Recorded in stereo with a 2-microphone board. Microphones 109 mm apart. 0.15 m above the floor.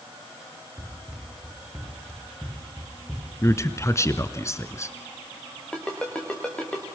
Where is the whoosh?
I don't hear a whoosh.